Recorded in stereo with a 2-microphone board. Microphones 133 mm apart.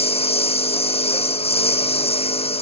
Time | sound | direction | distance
0.0 | a lawn mower | 50° left (ahead or behind) | ?